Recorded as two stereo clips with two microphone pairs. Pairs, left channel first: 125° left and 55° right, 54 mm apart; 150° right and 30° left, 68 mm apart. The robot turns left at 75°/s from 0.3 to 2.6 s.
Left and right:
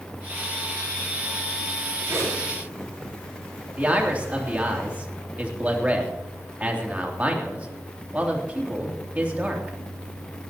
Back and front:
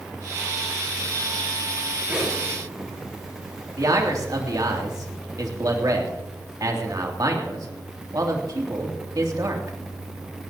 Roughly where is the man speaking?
Ahead.